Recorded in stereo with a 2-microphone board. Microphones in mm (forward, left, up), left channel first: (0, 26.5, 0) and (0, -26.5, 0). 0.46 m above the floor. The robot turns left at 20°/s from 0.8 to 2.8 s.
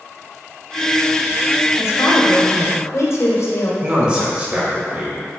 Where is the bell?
No bell in this recording.